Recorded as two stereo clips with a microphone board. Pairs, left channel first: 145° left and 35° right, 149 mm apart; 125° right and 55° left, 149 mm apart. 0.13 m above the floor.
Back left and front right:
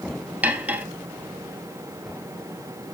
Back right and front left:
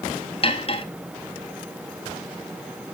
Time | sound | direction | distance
0.4 | cutlery clinking | 110° right | 1.1 m